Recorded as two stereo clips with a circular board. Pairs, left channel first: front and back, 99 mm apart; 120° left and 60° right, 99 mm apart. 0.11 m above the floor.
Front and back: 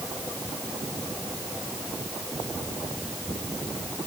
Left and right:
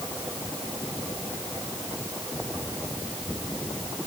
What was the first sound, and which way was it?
Only background noise.